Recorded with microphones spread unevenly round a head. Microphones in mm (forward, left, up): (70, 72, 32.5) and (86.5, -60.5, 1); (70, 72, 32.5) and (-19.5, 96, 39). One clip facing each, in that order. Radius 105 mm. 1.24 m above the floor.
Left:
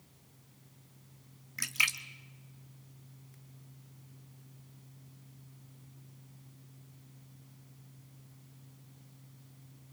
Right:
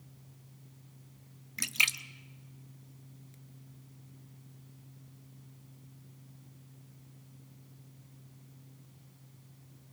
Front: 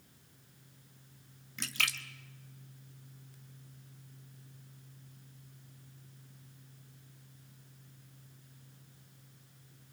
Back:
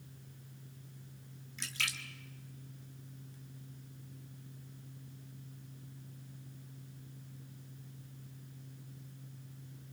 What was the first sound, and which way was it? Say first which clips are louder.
A splash: right 1 dB, front 4 dB; 15° right.